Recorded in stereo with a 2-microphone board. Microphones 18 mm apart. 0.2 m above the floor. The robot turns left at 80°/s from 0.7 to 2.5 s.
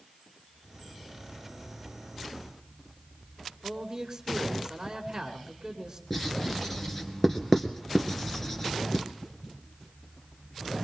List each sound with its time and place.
3.6 s a man speaking: 20° right (ahead or behind), 2 m
6.1 s writing: 20° left (ahead or behind), 1.8 m